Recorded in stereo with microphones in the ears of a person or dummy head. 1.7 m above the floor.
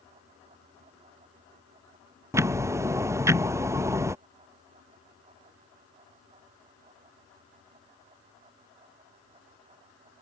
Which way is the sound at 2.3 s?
15° right (ahead or behind).